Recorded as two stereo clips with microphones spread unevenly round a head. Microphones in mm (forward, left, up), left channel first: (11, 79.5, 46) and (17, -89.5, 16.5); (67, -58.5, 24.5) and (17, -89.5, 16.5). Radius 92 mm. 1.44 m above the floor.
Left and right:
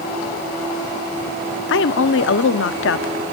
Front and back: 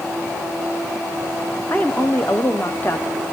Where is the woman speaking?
105° left, 0.7 m.